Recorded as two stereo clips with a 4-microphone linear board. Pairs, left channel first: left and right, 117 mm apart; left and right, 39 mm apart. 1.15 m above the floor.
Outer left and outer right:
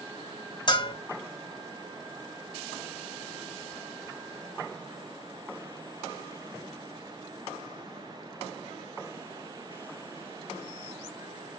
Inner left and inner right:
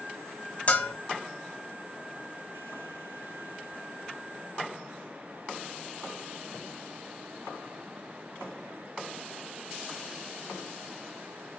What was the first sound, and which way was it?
A bell, 40° left (ahead or behind).